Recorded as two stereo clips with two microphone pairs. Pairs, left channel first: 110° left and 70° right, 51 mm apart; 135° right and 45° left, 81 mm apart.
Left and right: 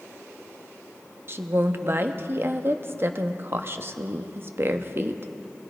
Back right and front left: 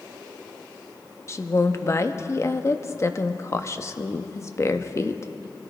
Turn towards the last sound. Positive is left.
turn(degrees=-95)